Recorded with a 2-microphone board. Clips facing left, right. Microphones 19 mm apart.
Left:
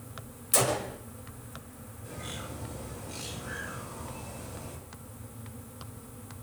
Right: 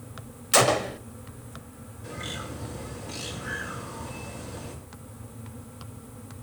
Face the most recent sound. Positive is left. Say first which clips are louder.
# right 5 dB
turn(degrees=-45)  # may be behind; listen again after turning